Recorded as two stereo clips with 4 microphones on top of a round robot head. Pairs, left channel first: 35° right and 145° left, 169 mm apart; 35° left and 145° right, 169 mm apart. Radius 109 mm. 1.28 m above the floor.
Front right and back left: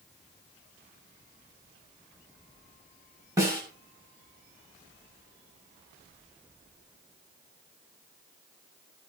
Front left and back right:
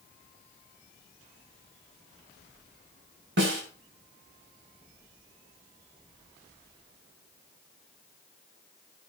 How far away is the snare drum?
About 7 m.